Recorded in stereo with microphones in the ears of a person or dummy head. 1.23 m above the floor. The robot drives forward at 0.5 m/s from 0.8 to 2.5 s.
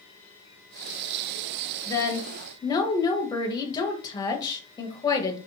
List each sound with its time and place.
1.9 s a woman speaking: 10° left (ahead or behind), 1.1 m; by 5.4 s 15° left (ahead or behind), 0.8 m